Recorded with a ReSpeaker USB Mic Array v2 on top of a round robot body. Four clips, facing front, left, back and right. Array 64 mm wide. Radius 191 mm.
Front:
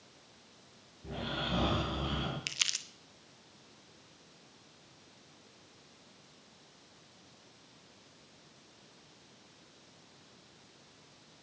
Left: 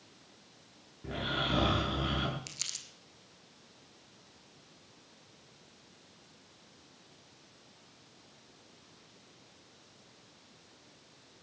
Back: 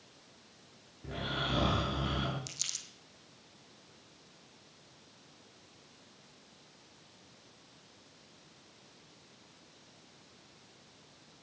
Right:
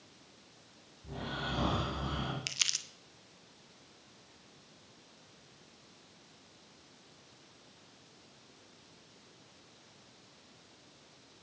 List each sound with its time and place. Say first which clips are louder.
1.0 s snoring: left 5 dB, back 1 dB; 100° left, 7.5 m
2.5 s crumpling: right 8 dB, front 9 dB; 30° right, 1.8 m